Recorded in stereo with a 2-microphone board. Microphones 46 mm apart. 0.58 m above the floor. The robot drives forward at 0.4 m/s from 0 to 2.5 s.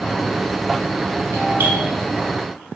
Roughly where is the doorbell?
Right.